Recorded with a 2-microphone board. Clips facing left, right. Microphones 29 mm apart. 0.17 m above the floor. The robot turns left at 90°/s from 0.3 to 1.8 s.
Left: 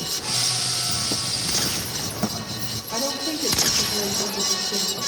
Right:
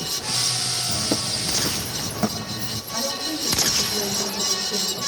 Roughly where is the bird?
Right.